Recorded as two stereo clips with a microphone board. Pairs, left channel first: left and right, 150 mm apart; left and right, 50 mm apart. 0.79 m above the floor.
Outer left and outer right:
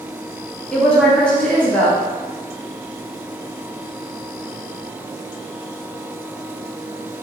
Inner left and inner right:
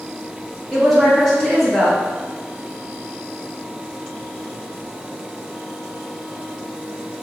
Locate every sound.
0.7 s a woman speaking: 5° left (ahead or behind), 1.0 m